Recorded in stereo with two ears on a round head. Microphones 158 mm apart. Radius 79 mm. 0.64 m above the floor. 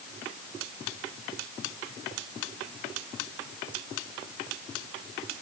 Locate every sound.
Only background noise.